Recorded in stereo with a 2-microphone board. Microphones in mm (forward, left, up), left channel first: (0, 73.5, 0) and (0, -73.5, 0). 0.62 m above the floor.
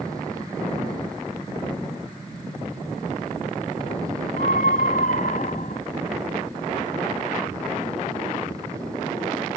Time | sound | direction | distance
4.4 | a scream | 75° left (ahead or behind) | ?